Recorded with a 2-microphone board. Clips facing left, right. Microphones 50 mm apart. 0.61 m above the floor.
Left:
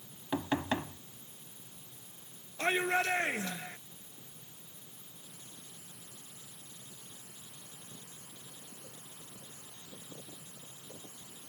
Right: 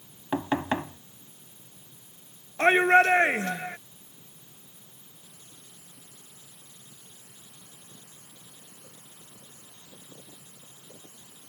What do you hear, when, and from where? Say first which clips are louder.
0.3 s knocking: right 5 dB; 30° right (ahead or behind)
2.6 s a shout: right 12 dB; 50° right (ahead or behind)